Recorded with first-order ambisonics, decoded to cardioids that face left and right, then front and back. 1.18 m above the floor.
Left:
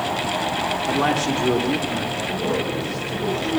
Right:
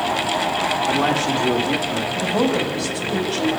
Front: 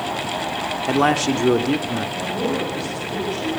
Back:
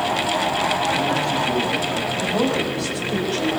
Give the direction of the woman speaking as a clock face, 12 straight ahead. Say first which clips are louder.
Right 6 dB, back 3 dB; 4 o'clock.